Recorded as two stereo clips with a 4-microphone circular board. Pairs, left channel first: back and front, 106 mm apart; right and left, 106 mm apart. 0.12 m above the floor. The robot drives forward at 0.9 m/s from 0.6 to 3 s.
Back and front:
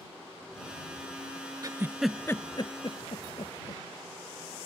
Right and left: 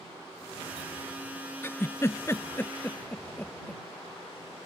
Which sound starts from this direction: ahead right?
A giggle, at 1.6 s.